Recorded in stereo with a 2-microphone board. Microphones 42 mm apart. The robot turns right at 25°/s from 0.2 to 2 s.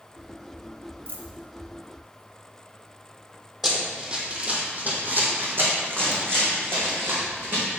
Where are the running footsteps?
10° right (ahead or behind), 1.6 m; by 7.8 s 75° right (ahead or behind), 4 m.